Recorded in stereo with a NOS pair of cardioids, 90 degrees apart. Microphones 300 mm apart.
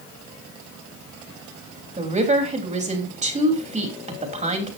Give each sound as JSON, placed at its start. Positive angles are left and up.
{"t": 2.0, "sound": "a woman speaking", "azimuth_deg": -25, "distance_m": 3.5}